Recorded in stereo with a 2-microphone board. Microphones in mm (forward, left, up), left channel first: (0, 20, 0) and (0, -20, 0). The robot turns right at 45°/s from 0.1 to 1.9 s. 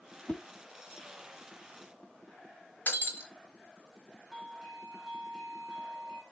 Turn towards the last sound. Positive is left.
turn(degrees=-5)  # may be behind; listen again after turning